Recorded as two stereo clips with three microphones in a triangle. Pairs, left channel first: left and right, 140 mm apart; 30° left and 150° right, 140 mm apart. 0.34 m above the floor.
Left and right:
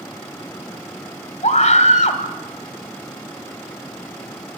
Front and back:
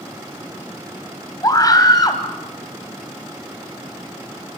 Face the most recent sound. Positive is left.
turn(degrees=85)